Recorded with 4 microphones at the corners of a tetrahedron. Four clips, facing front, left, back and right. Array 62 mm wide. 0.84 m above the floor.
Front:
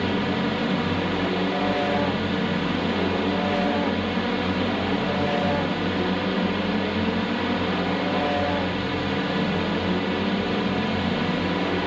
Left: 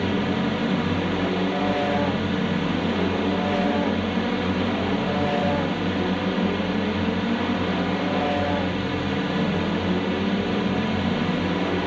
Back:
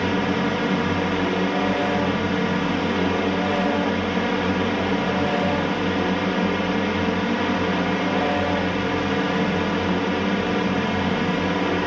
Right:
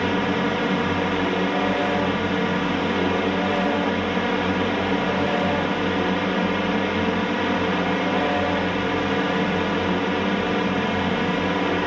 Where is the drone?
125° right.